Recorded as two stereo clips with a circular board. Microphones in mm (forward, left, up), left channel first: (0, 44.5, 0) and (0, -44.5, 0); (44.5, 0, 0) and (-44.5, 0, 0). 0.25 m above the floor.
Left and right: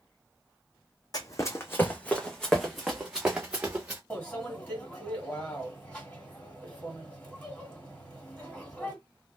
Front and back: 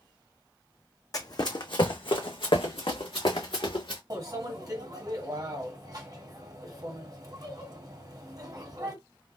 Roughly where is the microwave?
Behind.